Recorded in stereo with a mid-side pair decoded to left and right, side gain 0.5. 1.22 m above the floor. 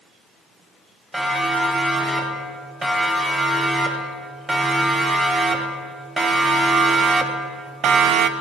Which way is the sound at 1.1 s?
15° right.